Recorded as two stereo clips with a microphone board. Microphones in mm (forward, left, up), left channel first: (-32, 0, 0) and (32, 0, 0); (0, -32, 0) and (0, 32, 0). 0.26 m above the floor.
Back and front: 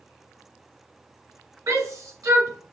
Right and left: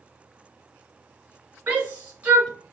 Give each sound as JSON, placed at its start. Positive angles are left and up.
{"t": 1.7, "sound": "a shout", "azimuth_deg": 25, "distance_m": 2.5}